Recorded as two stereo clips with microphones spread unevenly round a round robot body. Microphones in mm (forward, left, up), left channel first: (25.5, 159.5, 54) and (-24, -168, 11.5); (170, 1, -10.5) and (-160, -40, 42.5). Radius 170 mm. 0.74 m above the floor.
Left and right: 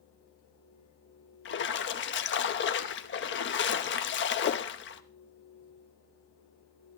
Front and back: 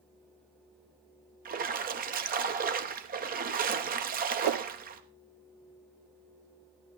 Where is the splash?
125° left, 0.9 m.